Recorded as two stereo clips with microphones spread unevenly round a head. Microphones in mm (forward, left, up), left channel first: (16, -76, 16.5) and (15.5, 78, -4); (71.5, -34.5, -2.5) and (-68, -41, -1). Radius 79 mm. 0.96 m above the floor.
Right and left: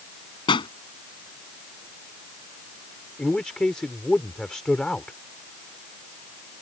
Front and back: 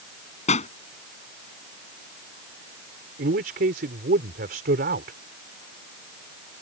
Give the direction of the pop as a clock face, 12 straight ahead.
1 o'clock.